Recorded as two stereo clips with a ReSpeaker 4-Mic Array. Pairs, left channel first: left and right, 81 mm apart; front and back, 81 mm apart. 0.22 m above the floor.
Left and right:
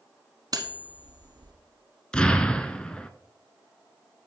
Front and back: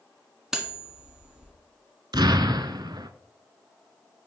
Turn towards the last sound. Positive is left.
turn(degrees=165)